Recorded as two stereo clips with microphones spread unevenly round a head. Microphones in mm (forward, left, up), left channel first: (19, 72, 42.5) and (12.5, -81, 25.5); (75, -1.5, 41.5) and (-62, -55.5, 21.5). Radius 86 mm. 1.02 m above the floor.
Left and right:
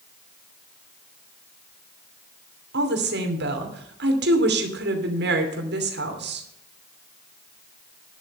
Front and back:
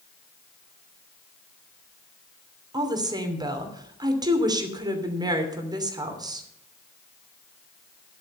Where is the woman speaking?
95° right, 2.5 m.